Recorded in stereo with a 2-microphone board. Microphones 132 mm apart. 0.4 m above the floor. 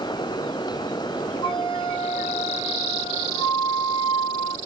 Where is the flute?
45° left (ahead or behind), 1.7 m.